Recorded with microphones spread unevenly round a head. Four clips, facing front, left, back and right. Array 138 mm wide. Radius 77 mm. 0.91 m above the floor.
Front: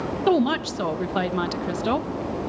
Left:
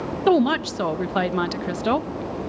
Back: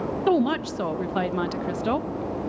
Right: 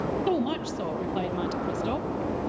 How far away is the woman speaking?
About 1.0 m.